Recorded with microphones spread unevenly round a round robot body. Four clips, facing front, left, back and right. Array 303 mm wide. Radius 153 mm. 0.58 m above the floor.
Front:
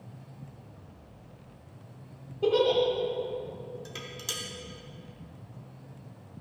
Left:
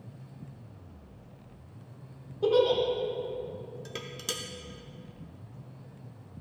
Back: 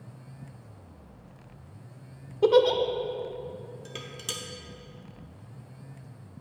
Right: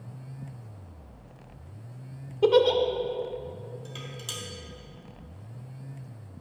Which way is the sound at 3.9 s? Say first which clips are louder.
Left 2 dB, back 1 dB; 105° left.